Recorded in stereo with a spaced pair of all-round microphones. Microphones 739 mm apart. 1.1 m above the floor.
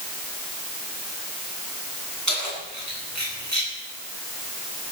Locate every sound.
2.3 s keys jangling: 25° right (ahead or behind), 9 m; by 3.7 s 20° right (ahead or behind), 9.5 m